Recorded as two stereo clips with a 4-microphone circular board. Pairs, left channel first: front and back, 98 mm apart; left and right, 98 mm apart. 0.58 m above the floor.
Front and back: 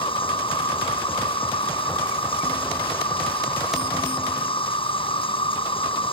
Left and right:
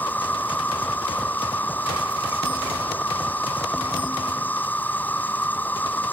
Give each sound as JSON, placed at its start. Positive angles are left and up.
{"t": 0.0, "sound": "an insect", "azimuth_deg": 20}